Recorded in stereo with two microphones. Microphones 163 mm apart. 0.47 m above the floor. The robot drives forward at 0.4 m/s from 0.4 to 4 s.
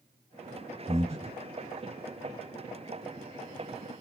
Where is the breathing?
40° right (ahead or behind), 1.3 m.